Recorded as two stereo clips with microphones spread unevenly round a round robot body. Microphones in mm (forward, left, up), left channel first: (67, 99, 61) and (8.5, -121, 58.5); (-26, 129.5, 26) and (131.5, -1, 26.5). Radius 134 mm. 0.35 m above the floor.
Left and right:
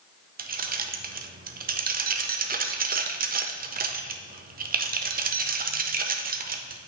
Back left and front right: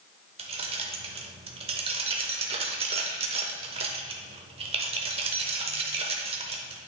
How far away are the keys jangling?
About 0.6 m.